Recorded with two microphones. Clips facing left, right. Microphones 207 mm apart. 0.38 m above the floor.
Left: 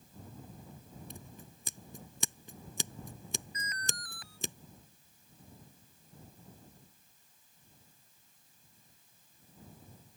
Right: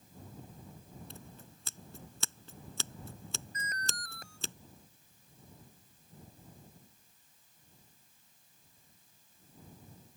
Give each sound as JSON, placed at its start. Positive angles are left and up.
{"t": 1.1, "sound": "scissors", "side_deg": 15}
{"t": 3.5, "sound": "an alarm", "side_deg": -45}